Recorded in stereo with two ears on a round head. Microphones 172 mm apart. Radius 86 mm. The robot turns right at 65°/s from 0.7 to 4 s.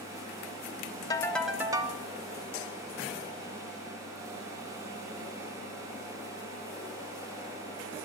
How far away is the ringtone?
About 0.8 m.